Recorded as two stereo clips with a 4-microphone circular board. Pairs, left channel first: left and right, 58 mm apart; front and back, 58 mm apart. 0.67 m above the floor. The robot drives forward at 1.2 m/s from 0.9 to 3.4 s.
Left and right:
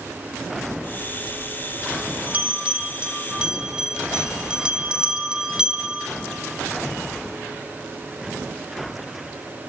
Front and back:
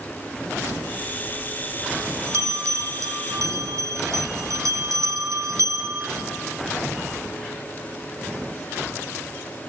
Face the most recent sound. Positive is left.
turn(degrees=-165)